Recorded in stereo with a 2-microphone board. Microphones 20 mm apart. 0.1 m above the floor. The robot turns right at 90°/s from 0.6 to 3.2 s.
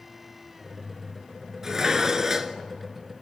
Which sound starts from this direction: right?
Dishes clattering, at 1.6 s.